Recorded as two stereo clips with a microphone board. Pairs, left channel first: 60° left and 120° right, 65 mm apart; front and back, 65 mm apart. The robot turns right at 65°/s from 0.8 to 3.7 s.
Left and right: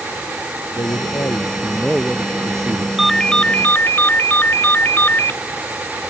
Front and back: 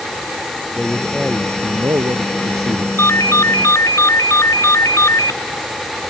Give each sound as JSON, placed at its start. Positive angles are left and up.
{"t": 0.8, "sound": "a man speaking", "azimuth_deg": 75}
{"t": 3.0, "sound": "a ringtone", "azimuth_deg": -35}